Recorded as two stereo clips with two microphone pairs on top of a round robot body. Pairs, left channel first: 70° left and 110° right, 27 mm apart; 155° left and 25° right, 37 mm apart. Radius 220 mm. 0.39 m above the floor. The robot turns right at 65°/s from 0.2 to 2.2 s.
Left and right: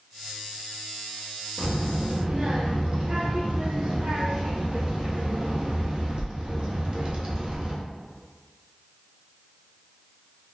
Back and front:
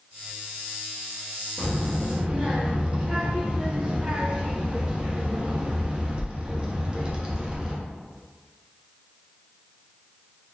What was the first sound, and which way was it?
A child speaking, 120° right.